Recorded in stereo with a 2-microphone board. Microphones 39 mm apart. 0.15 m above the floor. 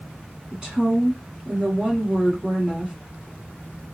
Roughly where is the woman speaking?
Right.